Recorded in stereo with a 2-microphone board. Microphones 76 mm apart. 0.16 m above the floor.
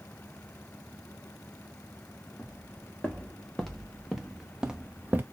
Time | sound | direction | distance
2.4 | footsteps | 15° left (ahead or behind) | 1.9 m